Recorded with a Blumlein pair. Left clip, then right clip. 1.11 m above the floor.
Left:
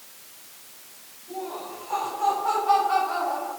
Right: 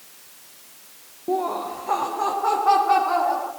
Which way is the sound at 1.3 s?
45° right.